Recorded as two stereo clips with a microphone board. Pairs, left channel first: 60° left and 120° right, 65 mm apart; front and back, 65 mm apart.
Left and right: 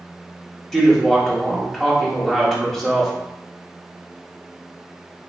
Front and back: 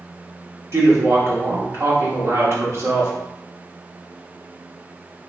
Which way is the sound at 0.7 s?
145° left.